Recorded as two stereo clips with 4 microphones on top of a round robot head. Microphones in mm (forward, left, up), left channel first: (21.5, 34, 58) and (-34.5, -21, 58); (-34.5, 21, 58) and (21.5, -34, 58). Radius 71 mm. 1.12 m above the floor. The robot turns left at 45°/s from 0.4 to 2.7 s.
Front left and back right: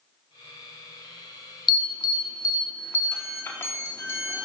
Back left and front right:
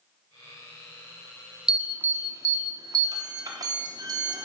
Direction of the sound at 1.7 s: 35° left.